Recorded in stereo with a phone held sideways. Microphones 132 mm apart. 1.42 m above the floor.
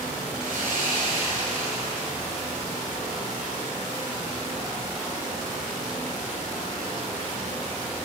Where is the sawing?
75° right (ahead or behind), 5 m.